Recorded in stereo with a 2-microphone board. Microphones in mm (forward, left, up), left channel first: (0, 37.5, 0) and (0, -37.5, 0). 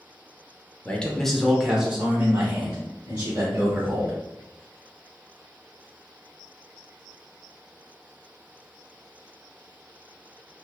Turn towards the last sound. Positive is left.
turn(degrees=-35)  # may be behind; listen again after turning